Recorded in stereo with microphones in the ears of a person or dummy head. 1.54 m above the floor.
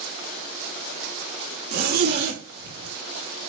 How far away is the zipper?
About 4 m.